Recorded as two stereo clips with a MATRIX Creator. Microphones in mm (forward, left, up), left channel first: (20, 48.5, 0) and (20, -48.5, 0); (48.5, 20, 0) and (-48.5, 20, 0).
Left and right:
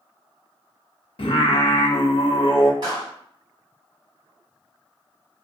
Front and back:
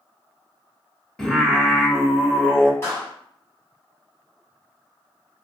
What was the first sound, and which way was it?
Singing, 85° left.